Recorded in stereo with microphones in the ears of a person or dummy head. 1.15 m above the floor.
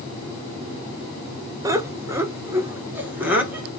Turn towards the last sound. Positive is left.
turn(degrees=-5)  # may be behind; listen again after turning